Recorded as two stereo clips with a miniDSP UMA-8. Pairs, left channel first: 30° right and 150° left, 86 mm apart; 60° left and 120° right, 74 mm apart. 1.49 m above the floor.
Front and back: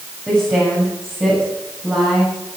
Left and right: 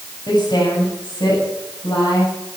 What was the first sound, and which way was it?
A woman speaking, 85° left.